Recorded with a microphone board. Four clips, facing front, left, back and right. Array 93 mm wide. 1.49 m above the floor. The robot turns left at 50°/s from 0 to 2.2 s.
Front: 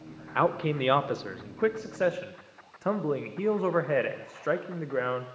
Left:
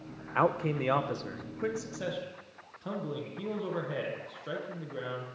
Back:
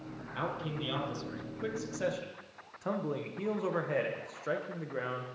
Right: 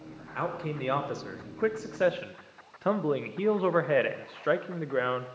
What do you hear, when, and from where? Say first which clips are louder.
0.3 s a man speaking: left 5 dB, front 11 dB; 35° left, 0.6 m; by 5.4 s 60° right, 0.6 m